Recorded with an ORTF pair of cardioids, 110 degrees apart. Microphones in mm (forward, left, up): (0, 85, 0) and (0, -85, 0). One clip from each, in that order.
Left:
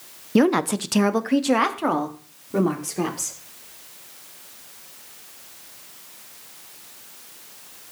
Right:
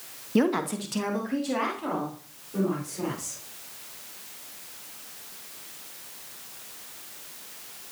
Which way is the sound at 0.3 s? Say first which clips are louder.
Left 6 dB; 30° left.